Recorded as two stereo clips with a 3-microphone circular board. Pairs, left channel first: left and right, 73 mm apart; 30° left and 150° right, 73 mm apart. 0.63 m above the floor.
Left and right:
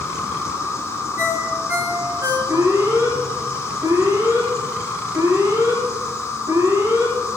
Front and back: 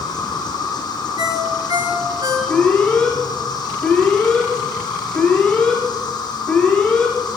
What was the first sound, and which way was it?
An insect, 40° left.